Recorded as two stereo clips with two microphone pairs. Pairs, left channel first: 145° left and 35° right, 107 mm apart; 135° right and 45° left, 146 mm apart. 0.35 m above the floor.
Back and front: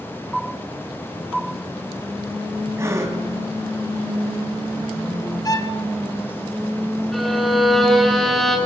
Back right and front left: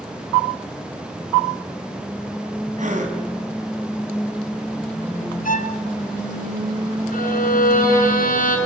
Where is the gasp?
25° left, 3.5 m.